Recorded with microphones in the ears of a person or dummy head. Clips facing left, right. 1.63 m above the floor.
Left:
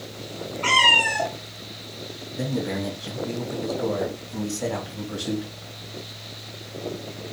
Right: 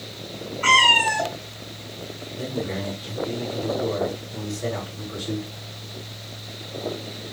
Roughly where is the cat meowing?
Centre.